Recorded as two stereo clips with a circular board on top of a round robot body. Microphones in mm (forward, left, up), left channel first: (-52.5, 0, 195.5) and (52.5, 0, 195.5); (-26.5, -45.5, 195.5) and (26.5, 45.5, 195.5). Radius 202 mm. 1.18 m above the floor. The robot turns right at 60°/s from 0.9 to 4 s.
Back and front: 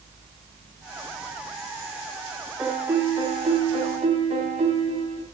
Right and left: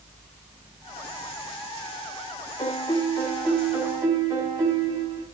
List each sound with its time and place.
2.6 s a piano: 85° right, 3.5 m; by 5.3 s straight ahead, 3.5 m